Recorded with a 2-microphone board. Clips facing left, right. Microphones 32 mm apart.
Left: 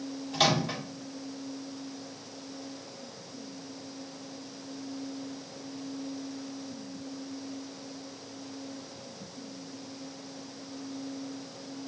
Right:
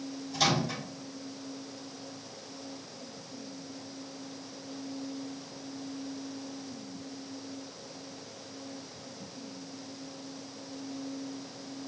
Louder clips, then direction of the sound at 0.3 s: Left 2 dB; 65° left (ahead or behind).